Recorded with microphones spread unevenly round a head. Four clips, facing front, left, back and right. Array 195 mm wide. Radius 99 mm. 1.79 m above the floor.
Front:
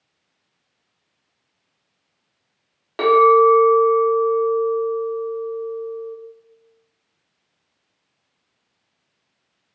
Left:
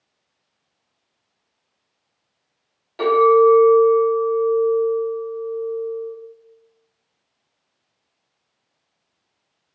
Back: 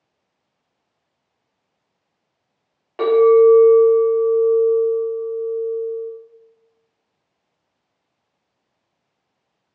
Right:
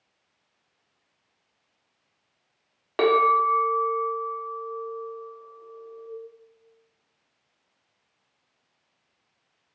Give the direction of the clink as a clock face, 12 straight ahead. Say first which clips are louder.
Left 7 dB, back 1 dB; 3 o'clock.